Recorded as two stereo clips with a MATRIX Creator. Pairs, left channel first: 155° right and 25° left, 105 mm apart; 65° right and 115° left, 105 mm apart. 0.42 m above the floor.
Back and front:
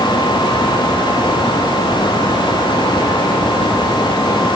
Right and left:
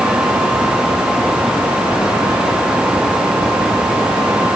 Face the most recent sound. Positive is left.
No sound to turn to.